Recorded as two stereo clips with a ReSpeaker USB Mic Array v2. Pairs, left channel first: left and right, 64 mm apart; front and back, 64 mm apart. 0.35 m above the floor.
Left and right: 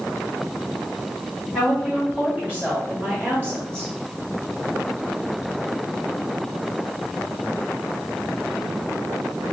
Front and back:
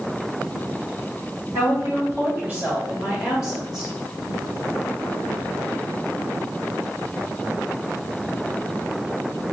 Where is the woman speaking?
165° right, 1.8 m; by 3.9 s 95° right, 1.8 m.